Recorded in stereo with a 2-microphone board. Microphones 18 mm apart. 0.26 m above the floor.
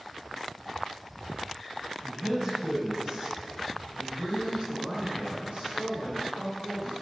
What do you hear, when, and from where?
2.0 s a man speaking: 15° right (ahead or behind), 1.2 m; by 6.9 s 70° right (ahead or behind), 3 m